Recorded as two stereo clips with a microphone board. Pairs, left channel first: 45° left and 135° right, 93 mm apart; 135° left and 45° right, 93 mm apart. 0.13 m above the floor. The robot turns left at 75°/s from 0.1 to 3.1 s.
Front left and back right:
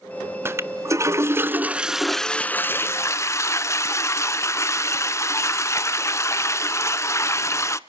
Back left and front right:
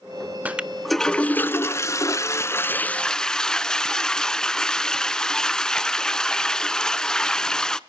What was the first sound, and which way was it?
A toilet flushing, 105° right.